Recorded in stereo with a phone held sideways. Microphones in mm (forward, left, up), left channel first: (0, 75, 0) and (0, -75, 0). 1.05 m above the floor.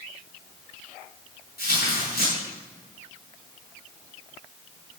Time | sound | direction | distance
1.6 | tearing paper | 85° left | 8 m